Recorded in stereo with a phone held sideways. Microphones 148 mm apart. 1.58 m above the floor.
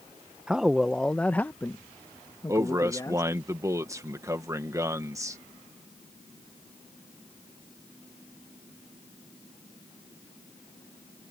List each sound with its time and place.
0.5 s a man speaking: 5° right (ahead or behind); by 3.3 s 25° left (ahead or behind)
2.5 s a man speaking: 20° right (ahead or behind)